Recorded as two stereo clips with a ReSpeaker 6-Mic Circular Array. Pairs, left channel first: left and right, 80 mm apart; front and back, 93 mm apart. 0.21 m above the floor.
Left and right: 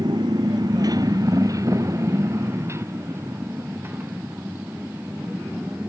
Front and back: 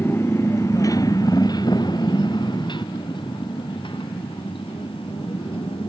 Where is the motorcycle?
65° right; by 5.9 s 20° right.